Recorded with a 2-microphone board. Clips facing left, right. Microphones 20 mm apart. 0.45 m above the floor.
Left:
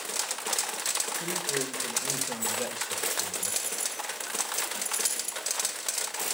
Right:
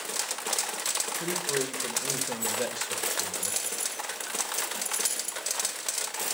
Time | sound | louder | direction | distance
1.2 | a man speaking | right 1 dB | 50° right (ahead or behind) | 1.9 m